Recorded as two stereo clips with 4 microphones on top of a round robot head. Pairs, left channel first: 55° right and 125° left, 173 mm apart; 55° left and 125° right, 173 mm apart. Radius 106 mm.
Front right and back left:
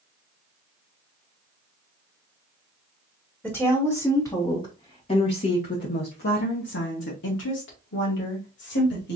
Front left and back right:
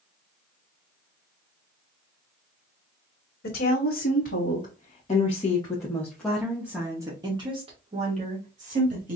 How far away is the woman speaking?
About 1.7 m.